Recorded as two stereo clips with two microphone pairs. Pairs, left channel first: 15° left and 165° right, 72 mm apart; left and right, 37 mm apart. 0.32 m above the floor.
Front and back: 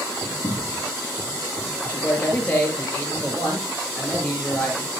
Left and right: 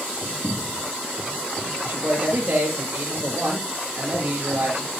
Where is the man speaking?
55° right, 6 m.